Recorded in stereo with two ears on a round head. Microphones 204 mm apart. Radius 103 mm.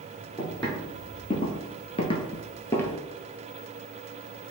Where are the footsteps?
25° left (ahead or behind), 1.6 m; by 3.0 s 10° left (ahead or behind), 0.9 m.